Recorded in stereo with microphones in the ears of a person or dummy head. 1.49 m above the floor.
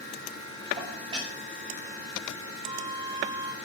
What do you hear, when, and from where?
0.8 s dishes clattering: 20° right (ahead or behind), 7 m
2.6 s a flute: 25° right (ahead or behind), 1.8 m